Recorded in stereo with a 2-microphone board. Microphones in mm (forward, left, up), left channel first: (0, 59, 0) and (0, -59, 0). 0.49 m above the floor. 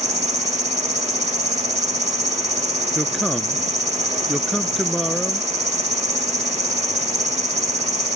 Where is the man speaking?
Centre (ahead or behind).